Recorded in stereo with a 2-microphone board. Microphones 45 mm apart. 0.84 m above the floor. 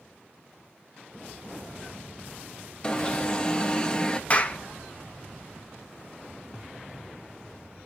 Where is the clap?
30° left (ahead or behind), 0.7 m.